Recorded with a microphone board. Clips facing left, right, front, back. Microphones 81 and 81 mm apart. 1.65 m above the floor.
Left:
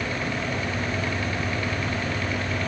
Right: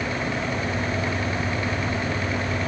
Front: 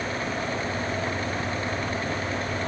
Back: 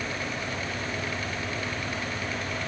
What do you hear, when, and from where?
Only background noise.